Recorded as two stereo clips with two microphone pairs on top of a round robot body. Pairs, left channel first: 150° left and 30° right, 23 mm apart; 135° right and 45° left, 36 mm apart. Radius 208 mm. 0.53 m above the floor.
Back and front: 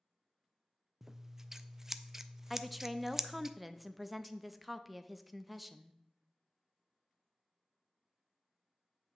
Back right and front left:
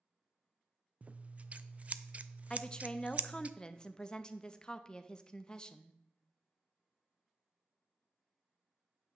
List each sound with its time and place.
1.0 s scissors: 35° left, 0.5 m
2.5 s a woman speaking: 115° right, 0.7 m